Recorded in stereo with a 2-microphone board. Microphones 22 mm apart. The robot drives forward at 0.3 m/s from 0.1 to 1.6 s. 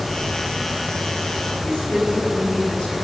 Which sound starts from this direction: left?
A woman speaking, at 1.6 s.